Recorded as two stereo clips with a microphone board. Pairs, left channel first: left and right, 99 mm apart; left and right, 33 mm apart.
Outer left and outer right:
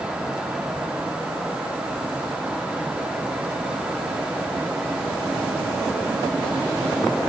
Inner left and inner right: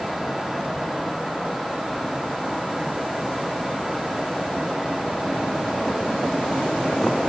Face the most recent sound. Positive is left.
No sound to turn to.